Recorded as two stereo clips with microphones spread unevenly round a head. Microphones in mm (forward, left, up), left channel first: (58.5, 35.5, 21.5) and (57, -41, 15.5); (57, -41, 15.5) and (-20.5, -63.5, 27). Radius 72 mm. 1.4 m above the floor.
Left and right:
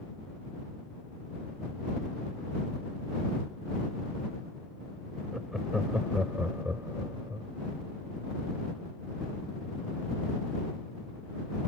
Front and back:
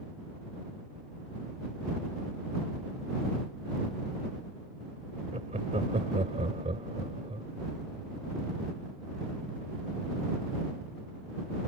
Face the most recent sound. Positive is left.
turn(degrees=-160)